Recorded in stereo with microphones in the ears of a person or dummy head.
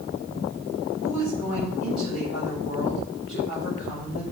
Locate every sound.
1.0 s a woman speaking: 50° left (ahead or behind), 5 m